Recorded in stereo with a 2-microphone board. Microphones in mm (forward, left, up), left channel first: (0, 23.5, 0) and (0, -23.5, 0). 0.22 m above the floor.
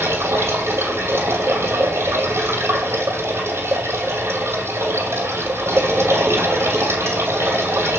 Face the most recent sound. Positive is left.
turn(degrees=-65)  # may be behind; listen again after turning